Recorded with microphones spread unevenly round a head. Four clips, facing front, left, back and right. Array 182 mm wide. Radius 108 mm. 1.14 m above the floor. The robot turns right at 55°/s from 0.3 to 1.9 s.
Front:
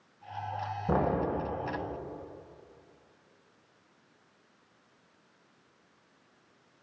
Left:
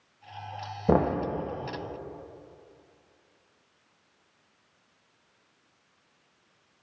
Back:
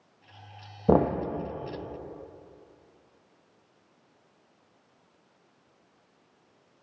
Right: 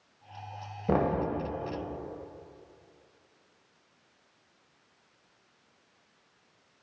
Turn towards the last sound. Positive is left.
turn(degrees=-145)